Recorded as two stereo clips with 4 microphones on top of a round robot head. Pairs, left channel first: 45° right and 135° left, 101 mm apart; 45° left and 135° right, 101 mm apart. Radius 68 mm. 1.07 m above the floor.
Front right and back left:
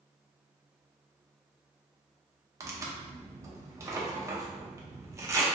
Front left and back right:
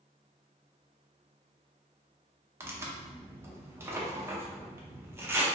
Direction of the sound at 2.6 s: 175° left.